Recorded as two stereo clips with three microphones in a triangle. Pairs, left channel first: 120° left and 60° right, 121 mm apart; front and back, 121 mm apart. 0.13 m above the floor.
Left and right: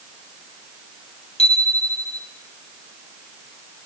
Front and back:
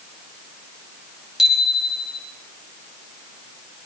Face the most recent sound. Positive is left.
turn(degrees=95)